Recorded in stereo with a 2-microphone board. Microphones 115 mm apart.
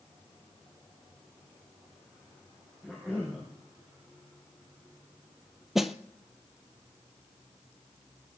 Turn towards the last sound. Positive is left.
turn(degrees=-5)  # may be behind; listen again after turning